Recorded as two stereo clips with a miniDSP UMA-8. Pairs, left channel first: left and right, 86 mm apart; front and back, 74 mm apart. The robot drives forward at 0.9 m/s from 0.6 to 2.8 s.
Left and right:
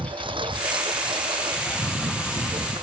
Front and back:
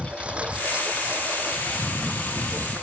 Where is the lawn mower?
105° right; by 2.8 s 115° right.